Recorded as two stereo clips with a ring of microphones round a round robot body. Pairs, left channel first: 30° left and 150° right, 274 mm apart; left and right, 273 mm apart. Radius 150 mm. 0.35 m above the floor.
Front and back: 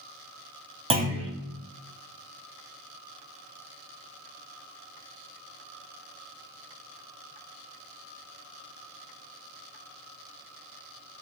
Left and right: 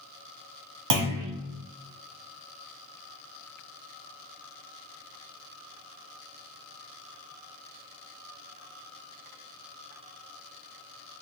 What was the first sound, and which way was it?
A clunk, 80° right.